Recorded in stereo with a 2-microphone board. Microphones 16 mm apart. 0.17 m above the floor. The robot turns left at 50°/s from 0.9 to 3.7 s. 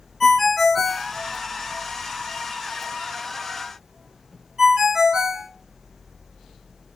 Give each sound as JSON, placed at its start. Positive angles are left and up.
{"t": 0.2, "sound": "a ringtone", "side_deg": 20, "distance_m": 0.7}